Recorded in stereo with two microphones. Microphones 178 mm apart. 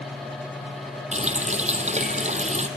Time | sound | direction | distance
1.1 | a running tap | 40° right (ahead or behind) | 2 m